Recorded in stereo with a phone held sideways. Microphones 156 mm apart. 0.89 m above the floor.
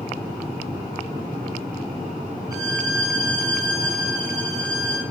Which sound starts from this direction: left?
A violin, at 2.5 s.